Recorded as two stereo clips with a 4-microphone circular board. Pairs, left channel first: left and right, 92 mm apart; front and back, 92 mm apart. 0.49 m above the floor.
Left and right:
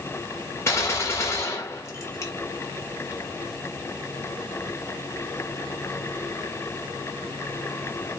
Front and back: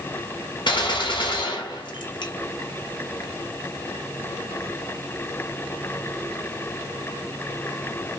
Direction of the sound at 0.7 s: 30° left.